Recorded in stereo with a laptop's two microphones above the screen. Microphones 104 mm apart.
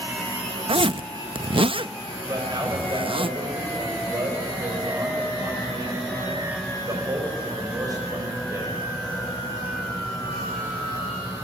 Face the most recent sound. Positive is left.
turn(degrees=-35)  # may be behind; listen again after turning